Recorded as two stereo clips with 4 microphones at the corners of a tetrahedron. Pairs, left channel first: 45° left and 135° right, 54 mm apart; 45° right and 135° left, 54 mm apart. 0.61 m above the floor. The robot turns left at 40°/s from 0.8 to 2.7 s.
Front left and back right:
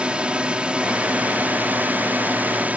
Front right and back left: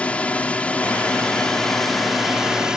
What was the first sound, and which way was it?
A drone, 85° right.